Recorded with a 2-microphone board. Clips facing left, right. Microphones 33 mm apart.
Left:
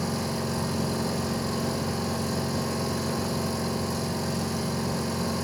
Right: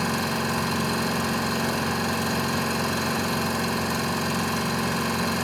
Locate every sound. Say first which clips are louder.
0.0 s an engine running: right 4 dB; 75° right (ahead or behind), 4 m